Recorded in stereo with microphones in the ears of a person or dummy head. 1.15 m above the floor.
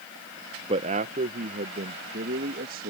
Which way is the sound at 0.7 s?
30° right (ahead or behind).